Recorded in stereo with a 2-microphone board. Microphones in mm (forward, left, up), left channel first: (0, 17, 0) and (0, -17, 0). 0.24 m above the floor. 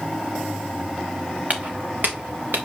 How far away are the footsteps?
About 1.3 m.